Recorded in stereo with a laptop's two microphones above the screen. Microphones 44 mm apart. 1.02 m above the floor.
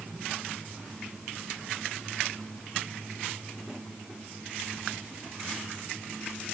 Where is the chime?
I don't hear a chime.